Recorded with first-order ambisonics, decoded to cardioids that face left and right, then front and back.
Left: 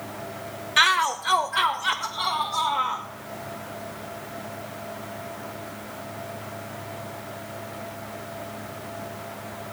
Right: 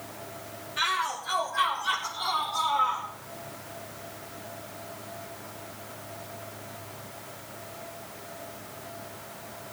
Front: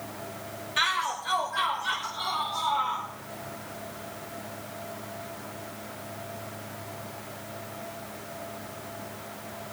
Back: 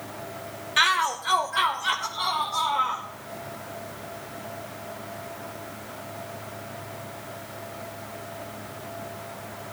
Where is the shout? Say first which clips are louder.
Left 8 dB, back 5 dB; 115° left, 0.7 m.